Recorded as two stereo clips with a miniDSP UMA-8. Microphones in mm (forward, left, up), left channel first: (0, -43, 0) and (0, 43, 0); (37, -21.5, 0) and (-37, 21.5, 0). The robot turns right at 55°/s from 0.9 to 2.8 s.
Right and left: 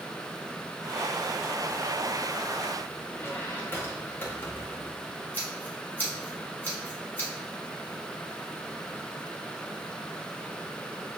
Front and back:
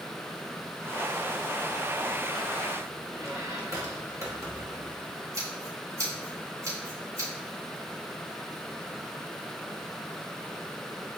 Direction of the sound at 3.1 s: 155° right.